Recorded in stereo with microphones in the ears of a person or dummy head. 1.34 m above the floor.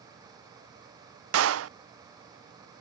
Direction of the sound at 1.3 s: 80° right.